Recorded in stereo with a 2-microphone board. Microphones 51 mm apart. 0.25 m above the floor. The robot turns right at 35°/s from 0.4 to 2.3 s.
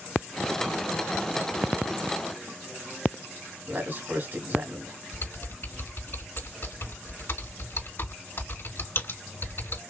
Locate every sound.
3.7 s a man speaking: 45° right (ahead or behind), 1.7 m
5.1 s typing on a keyboard: 60° left (ahead or behind), 3 m